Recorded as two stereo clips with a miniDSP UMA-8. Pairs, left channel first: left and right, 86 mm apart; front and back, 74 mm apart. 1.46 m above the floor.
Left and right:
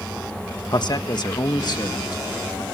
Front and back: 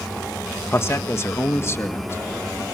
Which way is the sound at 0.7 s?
55° left.